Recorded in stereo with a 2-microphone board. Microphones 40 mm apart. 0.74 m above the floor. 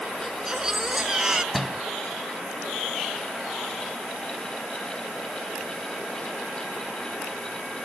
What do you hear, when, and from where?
0.2 s a baby crying: 15° right (ahead or behind)
1.5 s a door slam: 5° right (ahead or behind)